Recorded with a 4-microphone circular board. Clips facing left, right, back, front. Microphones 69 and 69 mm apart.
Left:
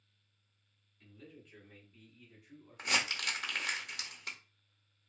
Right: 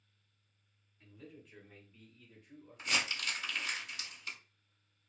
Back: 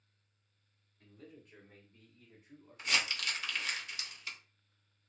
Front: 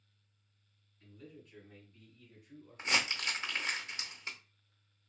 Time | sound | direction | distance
1.0 | a man speaking | 165° right | 1.4 m
2.8 | crumpling | 60° left | 0.5 m